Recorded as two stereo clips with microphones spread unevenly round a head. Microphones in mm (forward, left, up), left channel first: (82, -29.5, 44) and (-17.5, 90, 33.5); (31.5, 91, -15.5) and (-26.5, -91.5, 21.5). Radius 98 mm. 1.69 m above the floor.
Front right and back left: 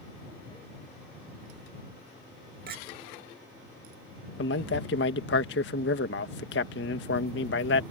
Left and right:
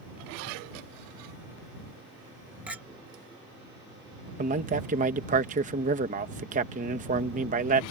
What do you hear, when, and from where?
2.7 s a clink: 170° left
4.4 s a man speaking: 60° right